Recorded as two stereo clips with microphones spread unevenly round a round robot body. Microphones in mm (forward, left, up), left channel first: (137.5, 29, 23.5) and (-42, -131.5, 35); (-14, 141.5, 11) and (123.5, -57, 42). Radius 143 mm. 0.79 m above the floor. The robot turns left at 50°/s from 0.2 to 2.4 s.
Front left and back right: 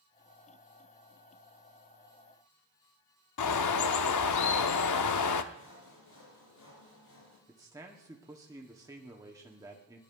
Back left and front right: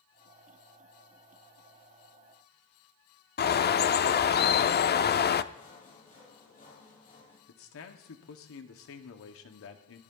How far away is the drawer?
I don't hear a drawer.